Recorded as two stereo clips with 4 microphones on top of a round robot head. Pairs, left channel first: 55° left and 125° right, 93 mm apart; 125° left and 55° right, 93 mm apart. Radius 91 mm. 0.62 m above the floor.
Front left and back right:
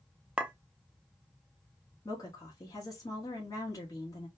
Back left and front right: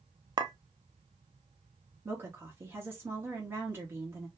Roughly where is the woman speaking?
Ahead.